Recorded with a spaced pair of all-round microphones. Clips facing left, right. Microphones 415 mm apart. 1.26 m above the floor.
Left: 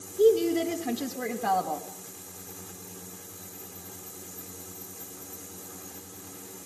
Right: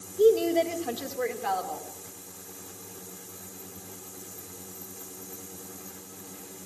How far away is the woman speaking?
About 1.9 m.